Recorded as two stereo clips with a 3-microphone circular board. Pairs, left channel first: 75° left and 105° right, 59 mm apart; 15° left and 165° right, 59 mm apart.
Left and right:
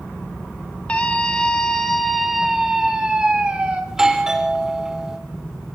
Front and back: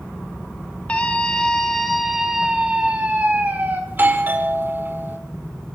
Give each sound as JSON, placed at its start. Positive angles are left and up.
{"t": 0.9, "sound": "a scream", "azimuth_deg": 45, "distance_m": 1.5}
{"t": 3.9, "sound": "a doorbell", "azimuth_deg": 180, "distance_m": 1.3}